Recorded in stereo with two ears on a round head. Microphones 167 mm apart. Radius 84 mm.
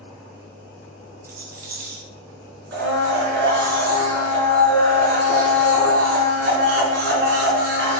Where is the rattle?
55° right (ahead or behind), 2 m.